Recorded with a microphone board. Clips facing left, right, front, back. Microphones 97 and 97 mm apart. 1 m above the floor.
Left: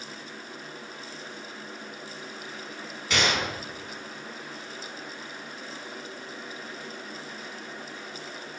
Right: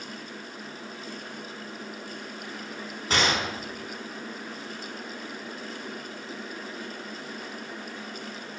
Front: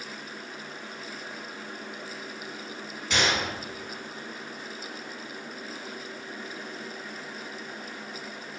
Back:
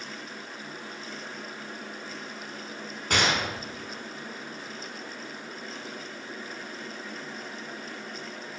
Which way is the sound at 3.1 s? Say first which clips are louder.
Right 1 dB, back 1 dB; 140° right.